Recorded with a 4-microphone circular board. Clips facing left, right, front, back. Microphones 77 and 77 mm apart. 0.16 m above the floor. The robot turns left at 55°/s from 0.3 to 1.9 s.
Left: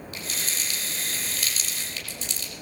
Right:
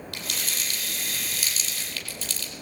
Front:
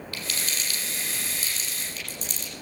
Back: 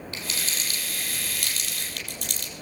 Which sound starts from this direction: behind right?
Crumpling, at 0.1 s.